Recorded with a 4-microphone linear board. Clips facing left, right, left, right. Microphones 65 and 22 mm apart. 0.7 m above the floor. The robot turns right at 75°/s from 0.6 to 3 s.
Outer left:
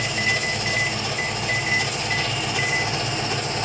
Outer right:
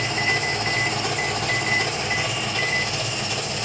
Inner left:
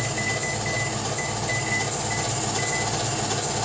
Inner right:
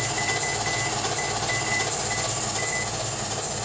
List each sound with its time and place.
0.0 s an engine running: 140° right, 1.6 m; by 3.7 s 40° left, 1.6 m